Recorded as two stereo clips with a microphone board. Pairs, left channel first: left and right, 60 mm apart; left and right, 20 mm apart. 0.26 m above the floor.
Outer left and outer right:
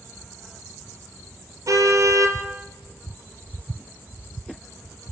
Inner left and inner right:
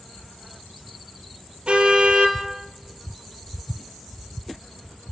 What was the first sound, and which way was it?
A car horn, 65° right (ahead or behind).